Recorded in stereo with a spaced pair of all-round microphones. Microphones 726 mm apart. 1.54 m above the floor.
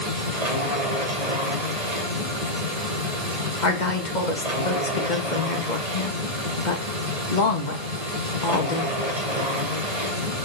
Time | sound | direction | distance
0.0 | a machine running | 60° right (ahead or behind) | 3.5 m
3.6 | a woman speaking | 80° left | 2 m